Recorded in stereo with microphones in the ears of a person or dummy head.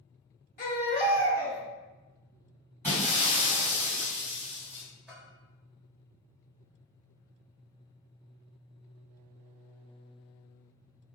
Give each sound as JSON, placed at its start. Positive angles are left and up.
{"t": 0.6, "sound": "a baby crying", "side_deg": 35, "distance_m": 1.0}
{"t": 2.8, "sound": "breaking glass", "side_deg": -15, "distance_m": 1.8}
{"t": 5.1, "sound": "a bell", "side_deg": -5, "distance_m": 1.7}